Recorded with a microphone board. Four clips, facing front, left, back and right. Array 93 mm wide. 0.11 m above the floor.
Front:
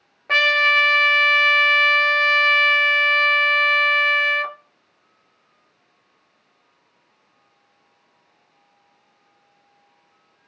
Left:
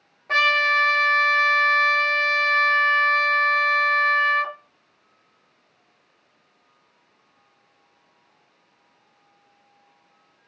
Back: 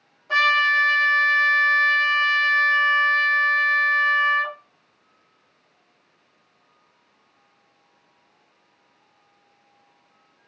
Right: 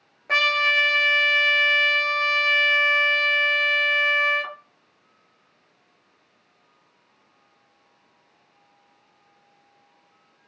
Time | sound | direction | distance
0.3 | a trumpet | 10° right | 0.6 m